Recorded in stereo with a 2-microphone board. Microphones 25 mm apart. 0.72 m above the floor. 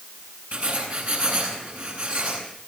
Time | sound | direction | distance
0.5 | writing | 80° right | 8.5 m